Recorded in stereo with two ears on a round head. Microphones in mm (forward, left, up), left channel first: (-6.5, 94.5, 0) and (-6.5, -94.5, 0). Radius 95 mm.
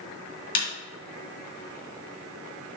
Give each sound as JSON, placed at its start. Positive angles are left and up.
{"t": 0.6, "sound": "a snare drum", "side_deg": 45, "distance_m": 2.0}